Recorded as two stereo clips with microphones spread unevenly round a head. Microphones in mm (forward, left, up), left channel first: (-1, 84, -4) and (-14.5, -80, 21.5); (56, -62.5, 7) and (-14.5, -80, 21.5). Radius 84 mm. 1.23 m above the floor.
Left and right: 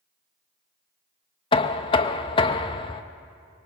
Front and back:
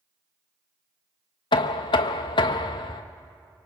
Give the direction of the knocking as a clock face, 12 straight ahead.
11 o'clock.